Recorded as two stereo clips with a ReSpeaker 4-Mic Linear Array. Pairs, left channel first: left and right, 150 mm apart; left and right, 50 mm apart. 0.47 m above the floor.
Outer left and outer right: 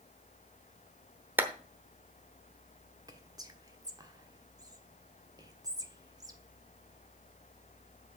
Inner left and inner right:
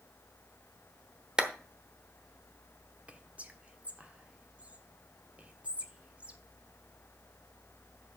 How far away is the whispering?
About 1.2 m.